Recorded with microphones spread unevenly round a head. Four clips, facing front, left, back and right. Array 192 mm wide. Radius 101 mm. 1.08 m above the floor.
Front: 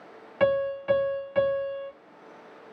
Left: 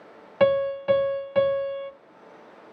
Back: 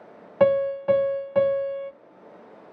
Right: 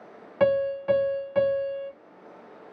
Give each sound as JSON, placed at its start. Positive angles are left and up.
{"t": 0.4, "sound": "a piano", "azimuth_deg": 165, "distance_m": 0.5}